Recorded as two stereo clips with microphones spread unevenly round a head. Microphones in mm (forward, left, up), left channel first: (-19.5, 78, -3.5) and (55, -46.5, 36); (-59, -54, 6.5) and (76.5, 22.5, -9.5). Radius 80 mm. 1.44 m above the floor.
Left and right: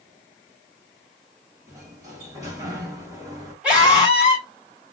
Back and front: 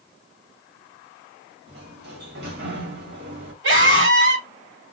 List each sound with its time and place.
1.7 s a sliding door: 5° left, 2 m
3.6 s a scream: 25° left, 3 m